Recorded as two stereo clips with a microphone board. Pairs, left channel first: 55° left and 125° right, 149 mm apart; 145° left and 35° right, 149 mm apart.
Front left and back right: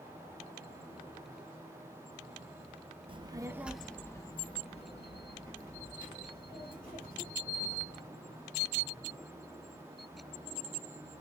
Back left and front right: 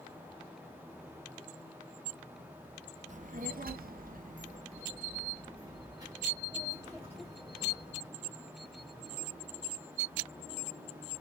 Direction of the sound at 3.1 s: 70° right.